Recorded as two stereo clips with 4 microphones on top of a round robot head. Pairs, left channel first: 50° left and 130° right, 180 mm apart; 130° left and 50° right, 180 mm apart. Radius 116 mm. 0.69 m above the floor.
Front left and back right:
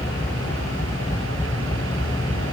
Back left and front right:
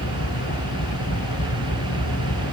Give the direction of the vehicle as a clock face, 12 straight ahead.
8 o'clock.